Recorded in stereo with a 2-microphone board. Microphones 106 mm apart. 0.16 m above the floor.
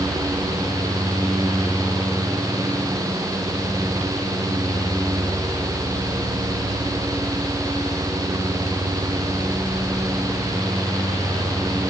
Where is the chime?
No chime in this recording.